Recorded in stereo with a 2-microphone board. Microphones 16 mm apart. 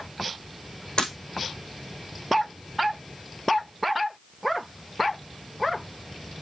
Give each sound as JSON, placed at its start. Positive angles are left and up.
{"t": 1.0, "sound": "breaking glass", "side_deg": 70, "distance_m": 5.0}